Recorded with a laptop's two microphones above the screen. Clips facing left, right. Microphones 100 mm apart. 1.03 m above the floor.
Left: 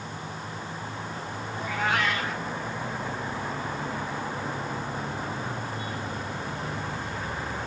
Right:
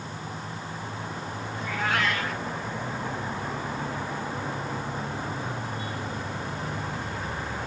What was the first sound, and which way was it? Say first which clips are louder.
A cat meowing: left 1 dB; 15° left (ahead or behind).